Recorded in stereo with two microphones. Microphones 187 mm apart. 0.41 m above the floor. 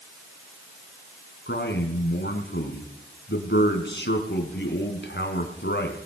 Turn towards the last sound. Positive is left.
turn(degrees=75)  # may be behind; listen again after turning